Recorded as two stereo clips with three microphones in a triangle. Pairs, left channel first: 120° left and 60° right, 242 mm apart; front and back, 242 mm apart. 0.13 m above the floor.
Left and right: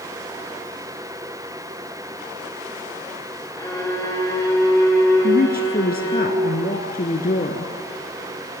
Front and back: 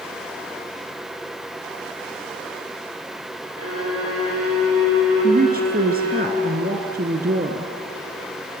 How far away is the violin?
About 7 m.